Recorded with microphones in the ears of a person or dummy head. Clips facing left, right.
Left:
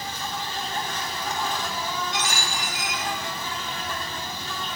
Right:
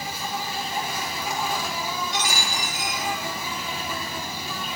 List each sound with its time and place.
0.0 s an insect: 10° right (ahead or behind), 2.5 m
2.1 s a dropped coin: 45° right (ahead or behind), 7.5 m